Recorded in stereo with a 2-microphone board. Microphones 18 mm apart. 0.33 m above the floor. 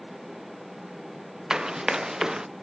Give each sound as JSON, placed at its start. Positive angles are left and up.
{"t": 1.5, "sound": "running footsteps", "side_deg": -35}